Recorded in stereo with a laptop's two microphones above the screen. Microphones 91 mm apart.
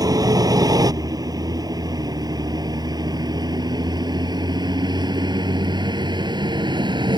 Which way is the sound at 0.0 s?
45° right (ahead or behind).